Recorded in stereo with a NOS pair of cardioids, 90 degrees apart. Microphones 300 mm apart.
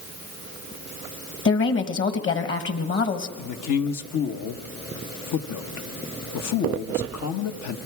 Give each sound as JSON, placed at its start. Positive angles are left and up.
{"t": 1.4, "sound": "a woman speaking", "azimuth_deg": 45, "distance_m": 2.0}
{"t": 3.4, "sound": "a man speaking", "azimuth_deg": 70, "distance_m": 1.4}